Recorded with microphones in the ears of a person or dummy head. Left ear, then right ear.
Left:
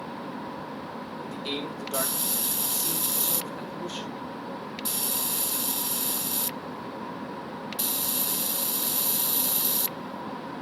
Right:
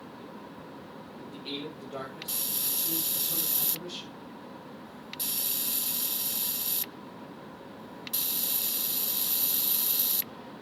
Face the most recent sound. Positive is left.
turn(degrees=35)  # may be behind; listen again after turning